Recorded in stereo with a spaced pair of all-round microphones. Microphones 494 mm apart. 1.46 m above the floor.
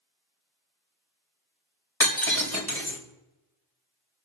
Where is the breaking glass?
50° left (ahead or behind), 4.5 m.